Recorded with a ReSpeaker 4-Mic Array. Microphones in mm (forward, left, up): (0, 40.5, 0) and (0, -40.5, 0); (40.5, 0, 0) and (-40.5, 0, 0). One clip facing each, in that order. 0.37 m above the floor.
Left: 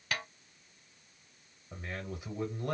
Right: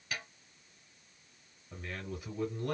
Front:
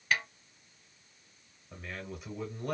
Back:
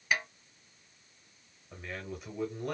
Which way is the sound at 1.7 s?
90° left.